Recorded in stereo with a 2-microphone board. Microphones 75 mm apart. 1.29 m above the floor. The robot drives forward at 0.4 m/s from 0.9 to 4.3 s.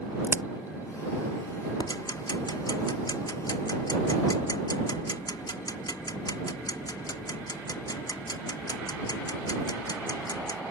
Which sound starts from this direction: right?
A crack, at 0.2 s.